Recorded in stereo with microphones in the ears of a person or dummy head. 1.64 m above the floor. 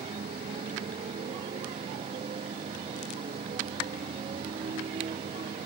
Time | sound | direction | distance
0.0 | a motorcycle | 25° right (ahead or behind) | ?